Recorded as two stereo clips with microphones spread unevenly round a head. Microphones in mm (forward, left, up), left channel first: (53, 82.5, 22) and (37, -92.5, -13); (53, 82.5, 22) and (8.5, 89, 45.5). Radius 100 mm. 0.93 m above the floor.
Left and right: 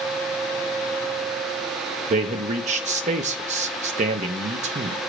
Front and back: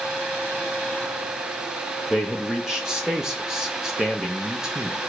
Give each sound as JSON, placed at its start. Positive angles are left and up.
{"t": 2.1, "sound": "a man speaking", "azimuth_deg": -90, "distance_m": 0.6}